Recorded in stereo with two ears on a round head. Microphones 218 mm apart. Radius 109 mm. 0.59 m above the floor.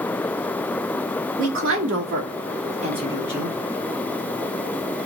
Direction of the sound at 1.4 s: 55° right (ahead or behind).